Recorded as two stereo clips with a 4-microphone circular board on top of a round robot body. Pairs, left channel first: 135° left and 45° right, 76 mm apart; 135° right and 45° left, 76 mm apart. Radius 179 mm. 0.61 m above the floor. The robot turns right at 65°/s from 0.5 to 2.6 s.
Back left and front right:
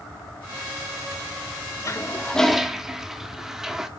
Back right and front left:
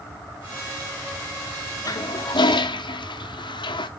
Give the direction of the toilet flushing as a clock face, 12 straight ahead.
6 o'clock.